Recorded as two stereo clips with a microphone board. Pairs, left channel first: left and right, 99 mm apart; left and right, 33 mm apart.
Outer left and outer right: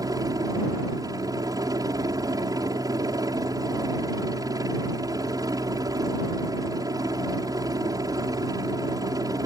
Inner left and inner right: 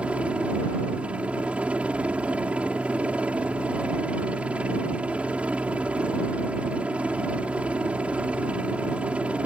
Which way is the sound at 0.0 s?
40° right (ahead or behind).